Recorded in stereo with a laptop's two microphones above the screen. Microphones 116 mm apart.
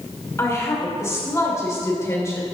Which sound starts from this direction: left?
A woman speaking, at 0.4 s.